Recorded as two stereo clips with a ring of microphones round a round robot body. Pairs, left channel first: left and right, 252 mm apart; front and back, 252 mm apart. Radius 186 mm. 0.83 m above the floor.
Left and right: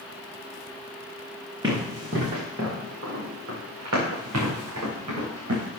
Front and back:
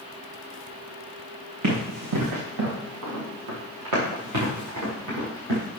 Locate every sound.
1.6 s running footsteps: 170° right, 3.5 m; by 5.8 s 135° right, 6 m